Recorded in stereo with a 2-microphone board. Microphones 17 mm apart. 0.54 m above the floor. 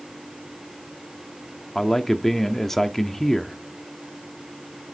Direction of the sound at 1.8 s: 20° left (ahead or behind).